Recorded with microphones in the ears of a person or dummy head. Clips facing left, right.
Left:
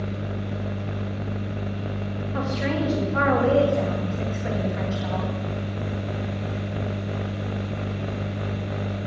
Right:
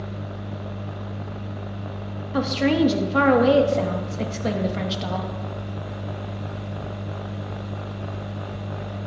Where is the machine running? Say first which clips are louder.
Left 3 dB; 30° left (ahead or behind), 0.8 m.